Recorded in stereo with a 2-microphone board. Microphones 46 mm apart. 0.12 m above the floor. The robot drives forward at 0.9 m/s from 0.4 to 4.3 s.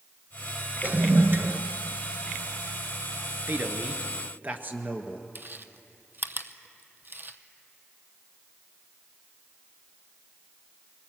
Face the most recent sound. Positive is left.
turn(degrees=-50)  # may be behind; listen again after turning